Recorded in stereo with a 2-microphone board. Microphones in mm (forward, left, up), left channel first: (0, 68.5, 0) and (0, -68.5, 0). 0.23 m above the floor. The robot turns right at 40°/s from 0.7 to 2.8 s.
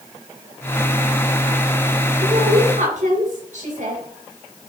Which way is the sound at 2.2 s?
65° right (ahead or behind).